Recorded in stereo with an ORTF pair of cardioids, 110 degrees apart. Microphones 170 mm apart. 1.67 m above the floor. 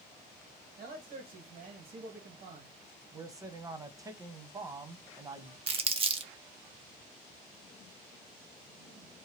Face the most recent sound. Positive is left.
turn(degrees=-35)